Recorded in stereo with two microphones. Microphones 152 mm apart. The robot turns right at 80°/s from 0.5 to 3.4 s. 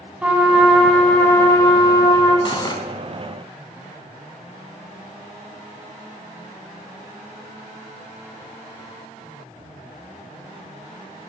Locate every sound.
0.2 s a trumpet: 10° right (ahead or behind), 1.7 m; by 2.4 s 20° left (ahead or behind), 1.7 m
2.5 s cutlery clinking: 35° left (ahead or behind), 0.9 m; by 2.8 s 30° left (ahead or behind), 0.9 m